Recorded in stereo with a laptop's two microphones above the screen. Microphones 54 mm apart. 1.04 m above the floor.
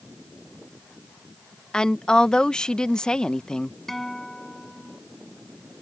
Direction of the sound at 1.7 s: 15° left (ahead or behind).